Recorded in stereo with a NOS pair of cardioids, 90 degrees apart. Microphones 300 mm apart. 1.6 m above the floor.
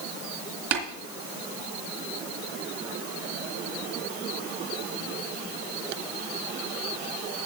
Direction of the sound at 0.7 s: 65° right.